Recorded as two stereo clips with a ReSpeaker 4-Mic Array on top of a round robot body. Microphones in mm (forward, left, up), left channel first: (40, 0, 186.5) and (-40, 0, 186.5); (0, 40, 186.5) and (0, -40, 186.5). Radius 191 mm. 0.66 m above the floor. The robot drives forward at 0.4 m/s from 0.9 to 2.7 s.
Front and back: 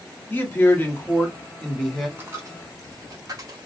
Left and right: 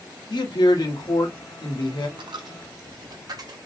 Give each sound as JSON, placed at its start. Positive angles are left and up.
{"t": 0.3, "sound": "a man speaking", "azimuth_deg": 65, "distance_m": 1.3}
{"t": 2.2, "sound": "a dropped coin", "azimuth_deg": -115, "distance_m": 0.5}